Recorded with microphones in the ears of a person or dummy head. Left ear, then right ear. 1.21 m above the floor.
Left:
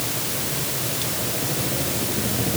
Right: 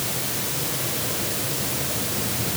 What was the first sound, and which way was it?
Only background noise.